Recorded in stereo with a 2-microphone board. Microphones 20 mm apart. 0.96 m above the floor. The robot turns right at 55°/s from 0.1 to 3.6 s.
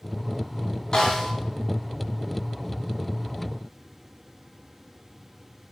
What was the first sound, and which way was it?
A snare drum, 40° left (ahead or behind).